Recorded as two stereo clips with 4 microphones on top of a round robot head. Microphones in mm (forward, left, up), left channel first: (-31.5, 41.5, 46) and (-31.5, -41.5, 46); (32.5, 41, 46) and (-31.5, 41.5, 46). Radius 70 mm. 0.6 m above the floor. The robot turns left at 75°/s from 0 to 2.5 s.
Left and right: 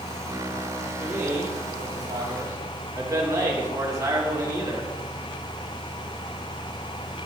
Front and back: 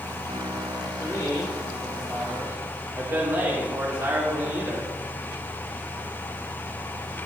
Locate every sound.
1.0 s a man speaking: 20° right, 2 m; by 4.9 s 130° right, 2 m